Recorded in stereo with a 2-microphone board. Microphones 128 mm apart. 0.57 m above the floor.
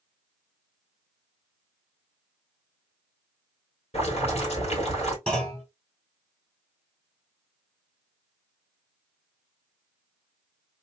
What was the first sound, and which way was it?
Boiling, 55° left (ahead or behind).